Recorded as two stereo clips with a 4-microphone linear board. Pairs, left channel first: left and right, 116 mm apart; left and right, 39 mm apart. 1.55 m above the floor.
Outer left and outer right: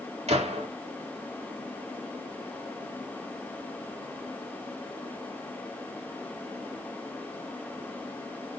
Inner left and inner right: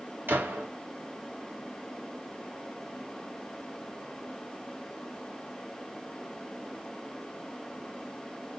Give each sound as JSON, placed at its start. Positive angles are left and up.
{"t": 0.3, "sound": "a gunshot", "side_deg": -75, "distance_m": 3.5}